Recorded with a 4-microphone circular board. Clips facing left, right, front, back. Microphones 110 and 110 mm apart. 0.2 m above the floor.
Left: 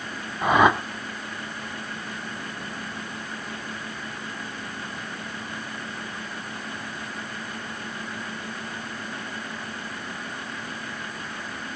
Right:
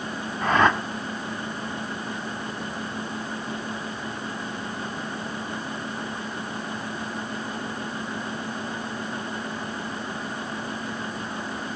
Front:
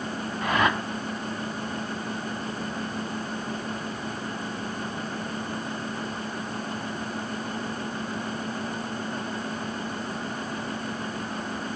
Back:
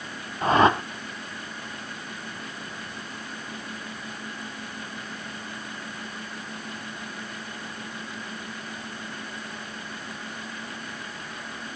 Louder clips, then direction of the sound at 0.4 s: Left 2 dB, back 6 dB; 160° left.